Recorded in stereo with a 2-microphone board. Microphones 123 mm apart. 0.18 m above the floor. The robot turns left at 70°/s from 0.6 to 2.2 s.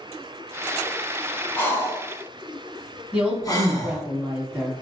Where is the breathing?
15° left (ahead or behind), 1.0 m; by 4.0 s 30° left (ahead or behind), 1.0 m.